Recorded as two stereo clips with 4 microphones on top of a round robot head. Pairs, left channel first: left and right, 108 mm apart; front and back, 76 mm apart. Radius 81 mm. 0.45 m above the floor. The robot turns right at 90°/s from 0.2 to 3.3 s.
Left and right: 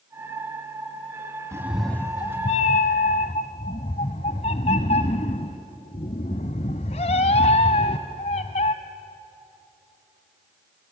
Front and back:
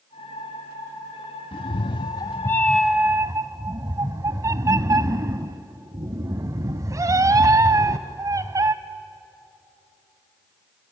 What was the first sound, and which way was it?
A cat meowing, 25° right.